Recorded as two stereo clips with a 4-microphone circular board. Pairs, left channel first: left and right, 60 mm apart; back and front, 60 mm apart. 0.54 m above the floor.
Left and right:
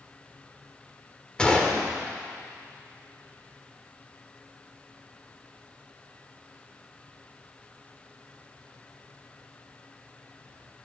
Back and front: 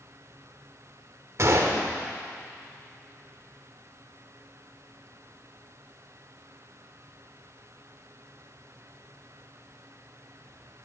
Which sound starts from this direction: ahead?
A gunshot, at 1.4 s.